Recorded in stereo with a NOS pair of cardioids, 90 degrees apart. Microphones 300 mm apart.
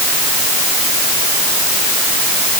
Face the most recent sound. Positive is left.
No sound to turn to.